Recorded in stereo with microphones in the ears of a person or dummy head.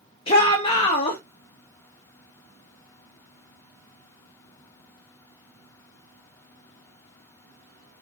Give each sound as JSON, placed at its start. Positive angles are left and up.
{"t": 0.3, "sound": "a shout", "side_deg": 35, "distance_m": 0.9}